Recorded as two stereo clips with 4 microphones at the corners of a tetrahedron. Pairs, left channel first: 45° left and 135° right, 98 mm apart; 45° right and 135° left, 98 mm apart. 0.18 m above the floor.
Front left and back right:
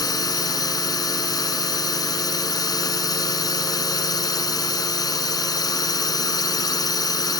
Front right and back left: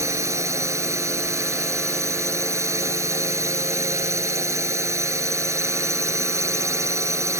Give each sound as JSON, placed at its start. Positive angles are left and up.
{"t": 0.0, "sound": "a drone", "azimuth_deg": 80}